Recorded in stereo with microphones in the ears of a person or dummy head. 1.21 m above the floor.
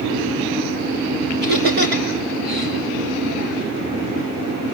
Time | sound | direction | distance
1.4 | laughter | 60° right (ahead or behind) | 4.5 m